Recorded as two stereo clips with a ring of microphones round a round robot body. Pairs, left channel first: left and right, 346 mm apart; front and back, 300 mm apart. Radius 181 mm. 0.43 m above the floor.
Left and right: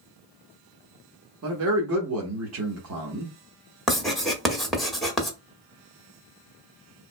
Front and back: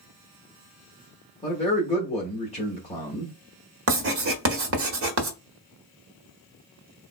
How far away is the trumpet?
No trumpet in this recording.